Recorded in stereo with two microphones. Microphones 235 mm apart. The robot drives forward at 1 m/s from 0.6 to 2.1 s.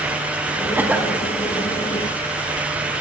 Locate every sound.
0.8 s a cough: 10° right (ahead or behind), 1.0 m; by 1.2 s 5° right (ahead or behind), 1.4 m